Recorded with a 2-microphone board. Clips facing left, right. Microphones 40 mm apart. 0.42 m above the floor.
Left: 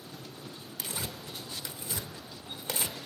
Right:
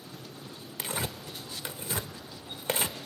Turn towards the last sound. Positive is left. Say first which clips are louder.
# right 5 dB
turn(degrees=-45)  # may be behind; listen again after turning